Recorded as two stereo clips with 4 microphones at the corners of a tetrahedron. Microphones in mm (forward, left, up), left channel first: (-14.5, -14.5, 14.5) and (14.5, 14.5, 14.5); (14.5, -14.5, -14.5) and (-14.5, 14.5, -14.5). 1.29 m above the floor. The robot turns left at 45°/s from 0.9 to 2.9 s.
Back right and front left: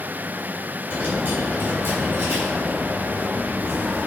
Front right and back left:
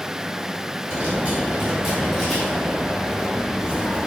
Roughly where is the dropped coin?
Left.